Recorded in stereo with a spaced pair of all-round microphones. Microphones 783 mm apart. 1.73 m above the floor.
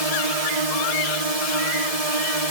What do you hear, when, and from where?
0.0 s a drone: 50° right (ahead or behind)